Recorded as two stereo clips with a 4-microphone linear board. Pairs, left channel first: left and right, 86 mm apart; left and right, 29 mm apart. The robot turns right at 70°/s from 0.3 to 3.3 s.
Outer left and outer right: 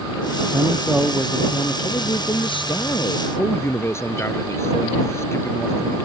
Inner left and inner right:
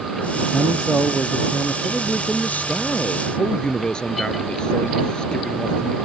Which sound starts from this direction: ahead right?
A man speaking, at 0.5 s.